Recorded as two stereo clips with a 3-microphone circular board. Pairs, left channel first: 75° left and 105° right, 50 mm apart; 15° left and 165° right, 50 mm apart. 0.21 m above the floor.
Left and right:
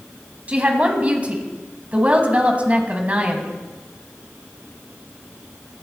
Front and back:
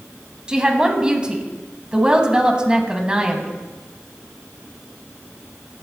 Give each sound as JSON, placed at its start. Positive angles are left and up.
{"t": 0.5, "sound": "a woman speaking", "azimuth_deg": -115, "distance_m": 1.5}